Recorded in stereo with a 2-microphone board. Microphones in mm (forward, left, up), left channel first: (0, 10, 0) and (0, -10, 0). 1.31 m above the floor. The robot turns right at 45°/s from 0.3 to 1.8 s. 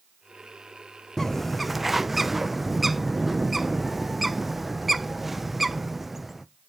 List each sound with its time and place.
1.2 s a bird: 20° left (ahead or behind), 0.5 m; by 6.5 s 10° right (ahead or behind), 0.5 m